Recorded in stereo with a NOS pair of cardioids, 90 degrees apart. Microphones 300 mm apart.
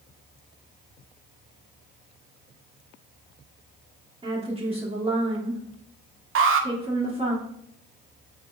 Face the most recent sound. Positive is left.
turn(degrees=-45)